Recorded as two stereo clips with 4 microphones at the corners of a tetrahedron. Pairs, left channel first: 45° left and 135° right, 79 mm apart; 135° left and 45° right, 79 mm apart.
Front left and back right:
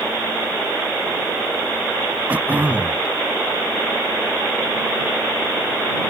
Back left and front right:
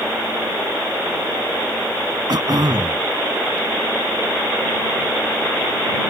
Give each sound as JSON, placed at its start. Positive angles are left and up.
{"t": 2.3, "sound": "throat clearing", "azimuth_deg": -65}